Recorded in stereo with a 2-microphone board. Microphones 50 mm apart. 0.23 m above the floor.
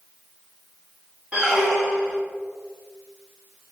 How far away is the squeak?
About 1.4 m.